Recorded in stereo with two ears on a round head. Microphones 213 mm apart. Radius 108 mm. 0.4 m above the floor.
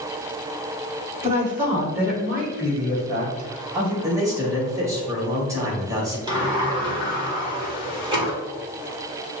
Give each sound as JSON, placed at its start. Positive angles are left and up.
{"t": 1.2, "sound": "a woman speaking", "side_deg": -10, "distance_m": 1.7}
{"t": 4.0, "sound": "a man speaking", "side_deg": -15, "distance_m": 1.5}
{"t": 6.3, "sound": "a sliding door", "side_deg": -20, "distance_m": 1.5}